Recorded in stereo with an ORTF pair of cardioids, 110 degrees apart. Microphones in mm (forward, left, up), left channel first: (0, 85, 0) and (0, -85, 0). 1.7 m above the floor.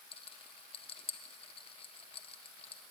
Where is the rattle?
35° left, 1.7 m.